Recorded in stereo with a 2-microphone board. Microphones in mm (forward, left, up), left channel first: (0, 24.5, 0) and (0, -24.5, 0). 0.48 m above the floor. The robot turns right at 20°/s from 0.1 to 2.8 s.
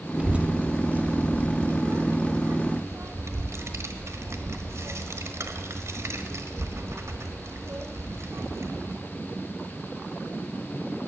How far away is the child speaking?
About 1.2 m.